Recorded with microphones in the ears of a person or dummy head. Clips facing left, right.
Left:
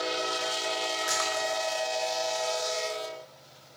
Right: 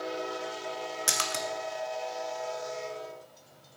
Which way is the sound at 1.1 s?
40° right (ahead or behind).